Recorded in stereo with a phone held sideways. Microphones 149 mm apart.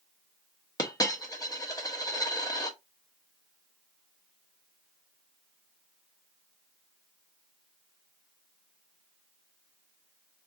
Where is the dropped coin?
25° left (ahead or behind), 0.9 m.